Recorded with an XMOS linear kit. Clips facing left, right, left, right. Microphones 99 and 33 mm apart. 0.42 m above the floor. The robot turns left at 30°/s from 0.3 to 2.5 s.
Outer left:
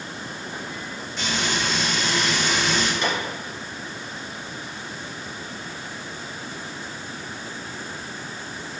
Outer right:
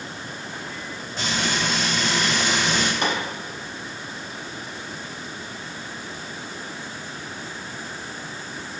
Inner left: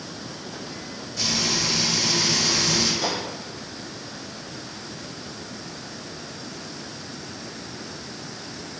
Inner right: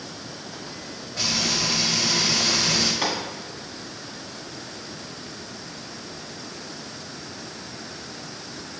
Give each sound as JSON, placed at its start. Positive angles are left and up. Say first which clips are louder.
{"t": 1.2, "sound": "frying", "louder": "outer right 1 dB, even", "azimuth_deg": -60, "distance_m": 1.4}
{"t": 3.0, "sound": "a gunshot", "louder": "outer right 1 dB, inner right 1 dB", "side_deg": -55, "distance_m": 1.0}